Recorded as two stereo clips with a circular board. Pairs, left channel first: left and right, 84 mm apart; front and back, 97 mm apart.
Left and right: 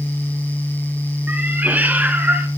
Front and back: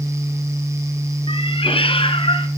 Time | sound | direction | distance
1.3 | a cat meowing | 20° right | 2 m